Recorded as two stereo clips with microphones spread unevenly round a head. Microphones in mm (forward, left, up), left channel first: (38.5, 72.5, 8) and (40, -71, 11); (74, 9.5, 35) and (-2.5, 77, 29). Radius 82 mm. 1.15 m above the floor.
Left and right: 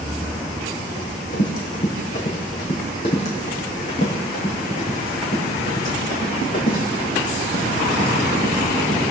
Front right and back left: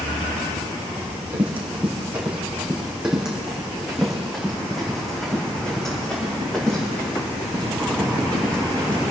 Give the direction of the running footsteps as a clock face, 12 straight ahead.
10 o'clock.